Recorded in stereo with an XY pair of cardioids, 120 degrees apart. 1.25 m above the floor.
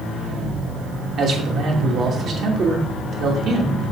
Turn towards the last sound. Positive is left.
turn(degrees=-55)